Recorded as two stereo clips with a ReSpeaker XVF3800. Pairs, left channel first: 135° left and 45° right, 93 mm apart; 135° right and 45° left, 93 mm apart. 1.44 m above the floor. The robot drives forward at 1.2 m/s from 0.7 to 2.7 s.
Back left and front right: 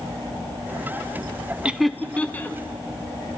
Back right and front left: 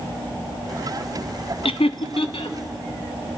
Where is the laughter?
120° right, 0.7 m; by 2.6 s 155° right, 1.6 m.